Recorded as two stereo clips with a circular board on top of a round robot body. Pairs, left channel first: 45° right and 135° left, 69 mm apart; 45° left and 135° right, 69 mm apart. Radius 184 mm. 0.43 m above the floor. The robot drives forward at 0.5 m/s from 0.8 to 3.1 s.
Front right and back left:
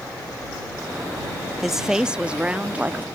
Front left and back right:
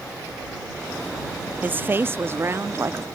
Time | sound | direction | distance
1.6 | a woman speaking | 145° right | ?